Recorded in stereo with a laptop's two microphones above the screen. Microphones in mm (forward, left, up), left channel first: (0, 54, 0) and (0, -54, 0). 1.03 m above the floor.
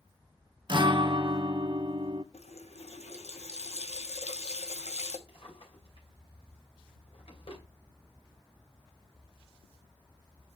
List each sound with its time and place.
0.7 s a guitar: 45° right (ahead or behind), 0.8 m
2.3 s a running tap: 80° left, 1.2 m
5.3 s a drawer: 55° left (ahead or behind), 2.5 m